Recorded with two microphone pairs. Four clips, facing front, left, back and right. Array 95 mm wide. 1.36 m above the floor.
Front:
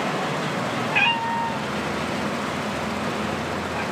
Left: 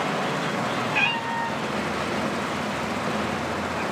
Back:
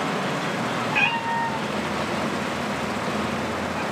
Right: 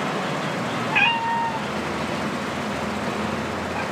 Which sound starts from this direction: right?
A cat meowing, at 0.9 s.